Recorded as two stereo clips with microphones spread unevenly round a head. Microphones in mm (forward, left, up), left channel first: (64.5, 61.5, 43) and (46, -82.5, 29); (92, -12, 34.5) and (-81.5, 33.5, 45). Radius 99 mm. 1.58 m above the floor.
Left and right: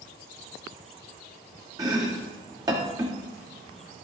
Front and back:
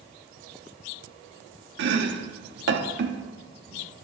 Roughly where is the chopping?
Behind.